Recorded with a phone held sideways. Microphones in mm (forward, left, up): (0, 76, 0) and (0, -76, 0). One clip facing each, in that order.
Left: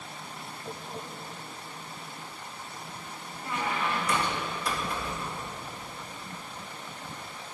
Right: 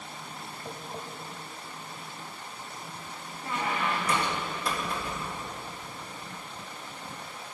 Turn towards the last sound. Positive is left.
turn(degrees=-25)  # may be behind; listen again after turning